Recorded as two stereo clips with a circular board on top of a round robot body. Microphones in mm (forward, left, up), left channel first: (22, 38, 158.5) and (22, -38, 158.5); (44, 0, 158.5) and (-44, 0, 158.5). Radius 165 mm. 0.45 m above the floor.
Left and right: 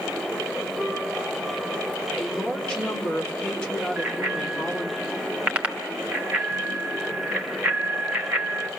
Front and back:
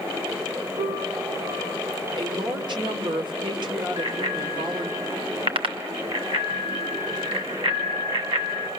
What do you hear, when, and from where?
0.8 s a piano: 170° left, 2 m
2.2 s a woman speaking: 165° left, 2.5 m
4.0 s a bicycle bell: 160° right, 2.5 m